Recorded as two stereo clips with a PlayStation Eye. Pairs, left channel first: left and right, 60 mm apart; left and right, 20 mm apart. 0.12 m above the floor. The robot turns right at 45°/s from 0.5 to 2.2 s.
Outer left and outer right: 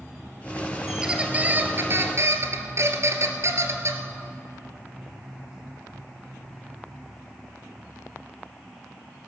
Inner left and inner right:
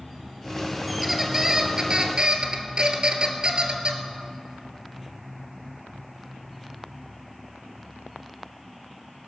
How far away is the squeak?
About 1.3 m.